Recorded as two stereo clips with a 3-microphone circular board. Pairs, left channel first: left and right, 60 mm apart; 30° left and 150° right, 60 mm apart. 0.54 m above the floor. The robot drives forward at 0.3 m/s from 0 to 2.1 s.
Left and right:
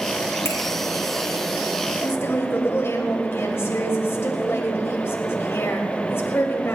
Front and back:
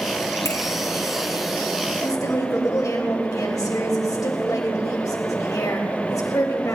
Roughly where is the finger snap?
Ahead left.